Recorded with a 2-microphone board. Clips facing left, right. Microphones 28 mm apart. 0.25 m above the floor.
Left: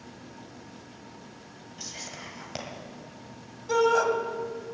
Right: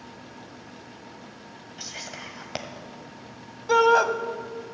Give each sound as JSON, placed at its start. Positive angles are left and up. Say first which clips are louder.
{"t": 1.8, "sound": "whispering", "louder": "right 3 dB", "side_deg": -30, "distance_m": 1.6}
{"t": 3.7, "sound": "a shout", "louder": "right 4 dB", "side_deg": -35, "distance_m": 1.1}